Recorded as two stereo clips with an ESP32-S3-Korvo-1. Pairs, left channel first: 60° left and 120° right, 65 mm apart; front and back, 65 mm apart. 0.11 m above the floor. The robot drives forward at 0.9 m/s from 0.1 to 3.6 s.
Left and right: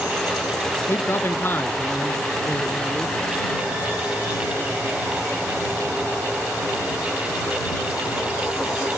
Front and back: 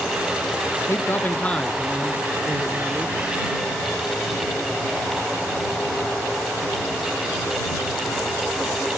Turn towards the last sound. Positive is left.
turn(degrees=160)